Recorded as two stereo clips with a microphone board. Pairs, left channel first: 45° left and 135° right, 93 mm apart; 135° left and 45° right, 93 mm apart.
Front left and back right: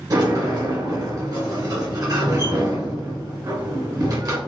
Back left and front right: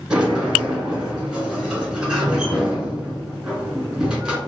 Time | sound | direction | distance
0.1 | a sliding door | 125° right | 1.3 m